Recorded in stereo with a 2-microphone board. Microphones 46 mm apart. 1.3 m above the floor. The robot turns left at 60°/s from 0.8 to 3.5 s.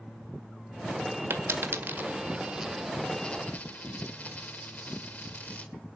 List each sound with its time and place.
1.3 s a dropped coin: 65° right (ahead or behind), 1.8 m; by 5.7 s 35° left (ahead or behind), 1.8 m